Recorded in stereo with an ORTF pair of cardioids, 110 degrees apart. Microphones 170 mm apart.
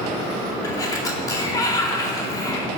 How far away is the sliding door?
About 2 m.